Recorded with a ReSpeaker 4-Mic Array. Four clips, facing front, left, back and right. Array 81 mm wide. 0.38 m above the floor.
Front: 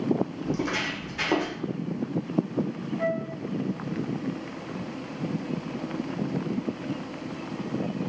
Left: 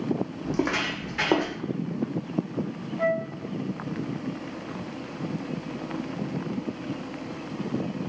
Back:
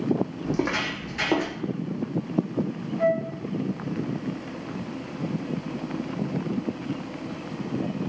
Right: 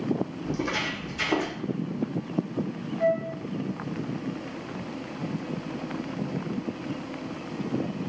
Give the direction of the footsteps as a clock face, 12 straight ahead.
8 o'clock.